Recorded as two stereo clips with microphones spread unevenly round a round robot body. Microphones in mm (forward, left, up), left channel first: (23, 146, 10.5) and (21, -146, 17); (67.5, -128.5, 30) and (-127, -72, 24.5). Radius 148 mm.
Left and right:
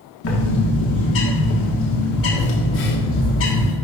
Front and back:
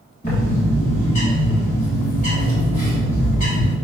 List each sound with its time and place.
0.2 s a bird: 45° left, 1.5 m